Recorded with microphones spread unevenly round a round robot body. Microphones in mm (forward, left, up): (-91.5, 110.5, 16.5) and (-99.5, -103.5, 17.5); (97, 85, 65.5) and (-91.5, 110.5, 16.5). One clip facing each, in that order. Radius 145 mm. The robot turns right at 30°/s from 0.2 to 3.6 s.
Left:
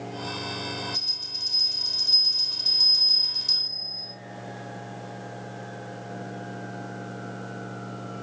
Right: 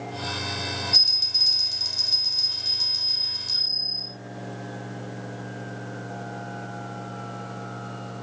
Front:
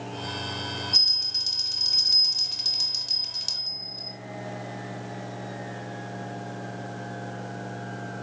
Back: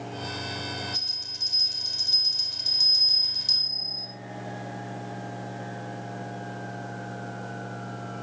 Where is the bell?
85° right, 3 m; by 4.1 s 5° right, 3 m.